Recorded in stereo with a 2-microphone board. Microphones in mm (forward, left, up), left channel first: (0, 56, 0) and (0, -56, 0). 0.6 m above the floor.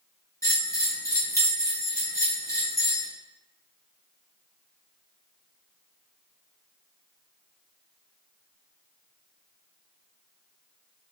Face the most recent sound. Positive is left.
turn(degrees=30)  # may be behind; listen again after turning